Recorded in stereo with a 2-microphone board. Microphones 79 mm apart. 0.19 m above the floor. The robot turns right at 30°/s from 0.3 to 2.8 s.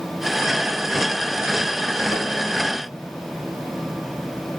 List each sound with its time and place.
2.1 s a whoosh: 45° left (ahead or behind), 0.6 m